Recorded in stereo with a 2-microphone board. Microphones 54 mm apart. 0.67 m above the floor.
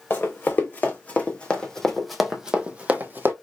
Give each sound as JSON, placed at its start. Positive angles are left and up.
{"t": 0.1, "sound": "running footsteps", "side_deg": 40, "distance_m": 1.9}